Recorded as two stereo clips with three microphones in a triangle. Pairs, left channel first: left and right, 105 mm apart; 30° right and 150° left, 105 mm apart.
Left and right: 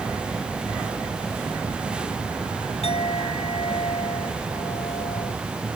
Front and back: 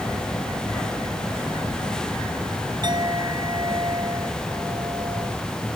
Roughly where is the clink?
Left.